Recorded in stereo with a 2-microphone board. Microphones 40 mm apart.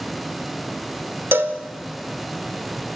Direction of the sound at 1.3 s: 80° right.